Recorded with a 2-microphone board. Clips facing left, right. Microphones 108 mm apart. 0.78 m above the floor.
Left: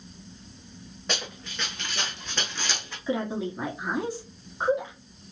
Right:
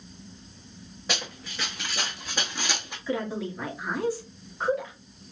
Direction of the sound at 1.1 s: 5° right (ahead or behind).